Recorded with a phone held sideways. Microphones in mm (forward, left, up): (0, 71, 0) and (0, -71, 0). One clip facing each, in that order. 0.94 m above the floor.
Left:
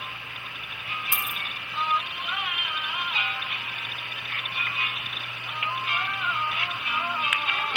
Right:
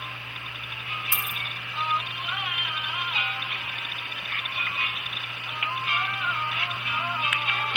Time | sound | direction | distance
1.1 | a dropped coin | 20° left (ahead or behind) | 2.5 m